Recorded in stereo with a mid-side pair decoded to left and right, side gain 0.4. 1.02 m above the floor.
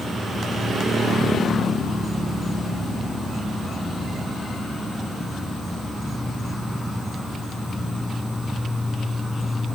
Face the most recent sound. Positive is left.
turn(degrees=0)